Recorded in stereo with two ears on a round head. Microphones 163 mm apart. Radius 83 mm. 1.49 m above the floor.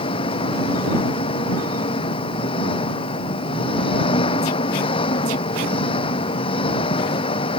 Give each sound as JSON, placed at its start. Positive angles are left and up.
{"t": 0.0, "sound": "an engine running", "side_deg": 35}